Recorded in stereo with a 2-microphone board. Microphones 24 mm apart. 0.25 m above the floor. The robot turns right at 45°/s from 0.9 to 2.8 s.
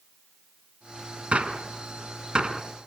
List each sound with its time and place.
1.3 s a gunshot: 70° right (ahead or behind), 1.2 m; by 2.6 s 30° right (ahead or behind), 1.2 m